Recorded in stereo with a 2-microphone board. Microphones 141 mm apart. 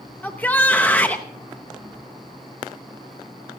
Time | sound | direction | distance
0.2 | a shout | 10° left (ahead or behind) | 0.7 m